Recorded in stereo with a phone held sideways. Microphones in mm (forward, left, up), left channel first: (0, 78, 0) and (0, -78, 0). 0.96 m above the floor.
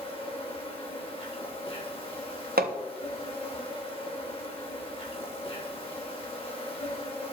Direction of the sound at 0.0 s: 35° left (ahead or behind).